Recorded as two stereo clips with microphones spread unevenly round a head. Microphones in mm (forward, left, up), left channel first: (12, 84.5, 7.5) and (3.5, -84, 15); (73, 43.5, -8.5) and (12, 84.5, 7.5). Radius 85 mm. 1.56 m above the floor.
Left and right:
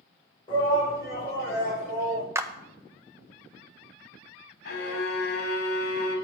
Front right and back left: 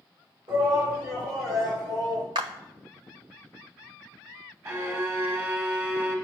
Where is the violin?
115° left, 2.5 m.